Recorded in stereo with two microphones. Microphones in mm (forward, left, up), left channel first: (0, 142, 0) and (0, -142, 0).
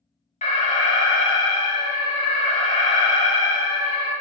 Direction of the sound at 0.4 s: 25° left (ahead or behind).